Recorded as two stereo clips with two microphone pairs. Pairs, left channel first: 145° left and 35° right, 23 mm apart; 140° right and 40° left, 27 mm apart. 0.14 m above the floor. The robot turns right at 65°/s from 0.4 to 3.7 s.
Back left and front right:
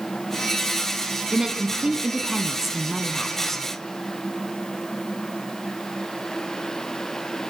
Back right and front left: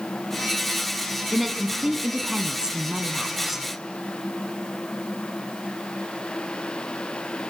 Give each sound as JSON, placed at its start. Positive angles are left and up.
{"t": 1.3, "sound": "a woman speaking", "azimuth_deg": -55, "distance_m": 1.1}